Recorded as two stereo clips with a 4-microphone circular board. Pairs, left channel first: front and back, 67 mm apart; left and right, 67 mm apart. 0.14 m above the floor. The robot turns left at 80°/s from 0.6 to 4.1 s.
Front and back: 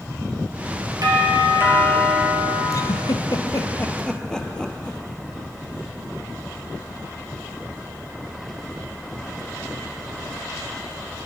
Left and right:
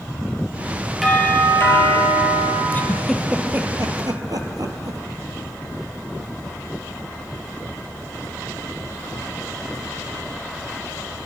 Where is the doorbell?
Straight behind, 4.5 m; by 2.6 s 55° left, 4.5 m.